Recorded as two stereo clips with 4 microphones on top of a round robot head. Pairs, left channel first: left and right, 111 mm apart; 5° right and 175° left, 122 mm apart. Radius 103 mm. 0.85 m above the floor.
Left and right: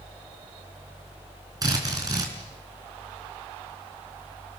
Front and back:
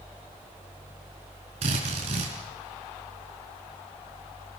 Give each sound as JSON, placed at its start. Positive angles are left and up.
{"t": 1.6, "sound": "a drill", "azimuth_deg": -145, "distance_m": 5.0}